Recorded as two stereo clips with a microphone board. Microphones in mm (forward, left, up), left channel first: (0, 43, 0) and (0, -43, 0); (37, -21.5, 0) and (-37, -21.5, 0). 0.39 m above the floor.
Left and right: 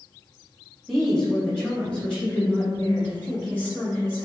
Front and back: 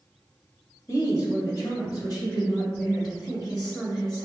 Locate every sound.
0.9 s a woman speaking: 5° left, 1.7 m; by 4.2 s 25° left, 4 m